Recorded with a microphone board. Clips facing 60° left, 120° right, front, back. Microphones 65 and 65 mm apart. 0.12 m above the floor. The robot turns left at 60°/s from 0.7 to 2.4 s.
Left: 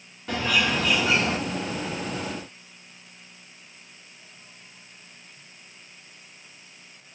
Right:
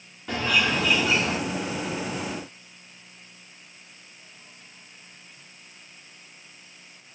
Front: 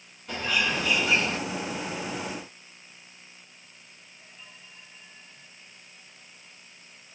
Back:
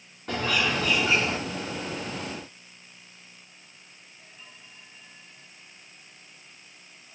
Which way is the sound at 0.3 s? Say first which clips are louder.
Even, back 2 dB; 150° left.